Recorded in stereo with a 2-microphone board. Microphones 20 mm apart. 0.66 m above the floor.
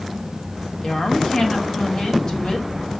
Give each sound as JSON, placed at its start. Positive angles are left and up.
{"t": 0.8, "sound": "a woman speaking", "side_deg": 40, "distance_m": 1.7}